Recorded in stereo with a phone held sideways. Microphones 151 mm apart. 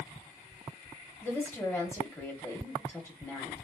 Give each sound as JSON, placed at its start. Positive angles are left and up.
{"t": 1.2, "sound": "a woman speaking", "side_deg": 15, "distance_m": 1.2}